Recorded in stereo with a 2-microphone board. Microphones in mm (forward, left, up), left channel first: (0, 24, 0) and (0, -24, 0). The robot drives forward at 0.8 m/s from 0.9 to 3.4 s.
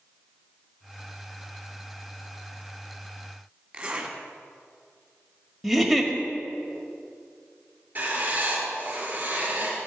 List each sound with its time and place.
3.7 s a zipper: 20° right (ahead or behind), 2 m
5.6 s a giggle: centre (ahead or behind), 1.6 m
8.0 s writing: 35° right (ahead or behind), 5 m